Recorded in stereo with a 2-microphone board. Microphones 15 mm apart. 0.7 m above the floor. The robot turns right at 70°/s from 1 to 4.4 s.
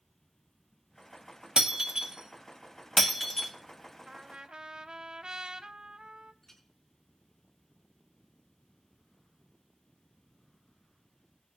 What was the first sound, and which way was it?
Breaking glass, 85° right.